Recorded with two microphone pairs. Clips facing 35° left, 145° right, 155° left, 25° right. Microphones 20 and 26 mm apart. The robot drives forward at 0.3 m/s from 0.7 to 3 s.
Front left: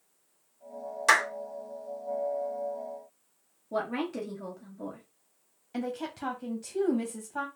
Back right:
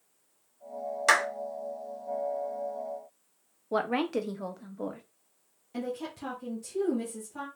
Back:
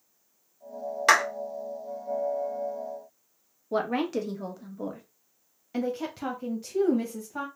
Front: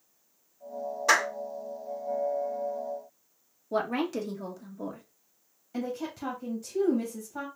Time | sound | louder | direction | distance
1.1 | a clap | front left 1 dB, back 3 dB | 135° left | 1.6 m
3.7 | a woman speaking | back right 3 dB, back 2 dB | 135° right | 0.9 m
5.7 | a woman speaking | front left 1 dB, back 3 dB | 105° left | 0.8 m